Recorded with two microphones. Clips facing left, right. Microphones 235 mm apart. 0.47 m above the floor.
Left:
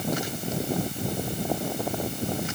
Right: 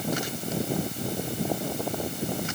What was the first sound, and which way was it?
Only background noise.